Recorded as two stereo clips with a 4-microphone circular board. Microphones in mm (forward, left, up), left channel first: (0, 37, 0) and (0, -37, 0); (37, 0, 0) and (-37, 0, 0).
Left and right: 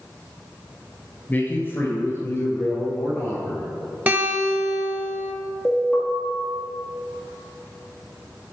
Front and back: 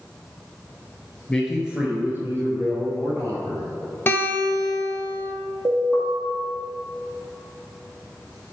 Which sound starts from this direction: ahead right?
A guitar, at 4.1 s.